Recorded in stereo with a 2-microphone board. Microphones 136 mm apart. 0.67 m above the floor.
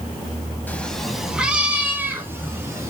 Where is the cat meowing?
10° left (ahead or behind), 0.8 m; by 2.9 s 20° right (ahead or behind), 2 m.